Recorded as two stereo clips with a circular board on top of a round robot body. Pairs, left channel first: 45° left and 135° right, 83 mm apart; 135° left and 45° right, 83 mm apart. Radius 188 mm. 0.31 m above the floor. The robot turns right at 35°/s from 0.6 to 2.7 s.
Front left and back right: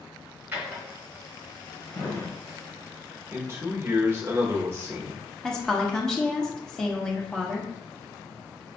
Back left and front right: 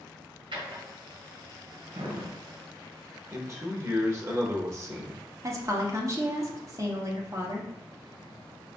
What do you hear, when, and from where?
0.5 s a drawer: 65° right, 1.5 m; by 2.3 s 5° right, 1.5 m
3.3 s a man speaking: 85° right, 1.2 m
5.4 s a woman speaking: 35° right, 1.3 m